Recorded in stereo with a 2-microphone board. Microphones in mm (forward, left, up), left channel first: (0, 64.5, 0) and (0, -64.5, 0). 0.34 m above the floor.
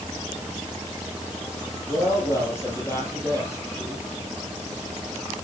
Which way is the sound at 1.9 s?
20° left (ahead or behind).